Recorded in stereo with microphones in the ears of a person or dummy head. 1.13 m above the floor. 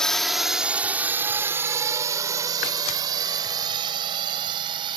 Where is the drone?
5° left (ahead or behind); by 5.0 s 30° right (ahead or behind).